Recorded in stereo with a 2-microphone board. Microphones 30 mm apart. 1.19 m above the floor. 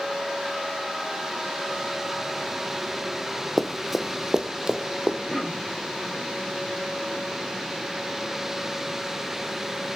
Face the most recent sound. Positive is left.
turn(degrees=-5)  # may be behind; listen again after turning